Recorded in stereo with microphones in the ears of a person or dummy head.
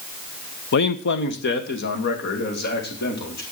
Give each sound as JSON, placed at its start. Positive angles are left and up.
{"t": 0.7, "sound": "a man speaking", "side_deg": 65, "distance_m": 1.0}